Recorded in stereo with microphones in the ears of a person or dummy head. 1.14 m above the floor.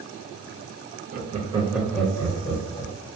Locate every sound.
1.1 s laughter: 45° right (ahead or behind), 0.7 m; by 2.9 s 25° left (ahead or behind), 1.1 m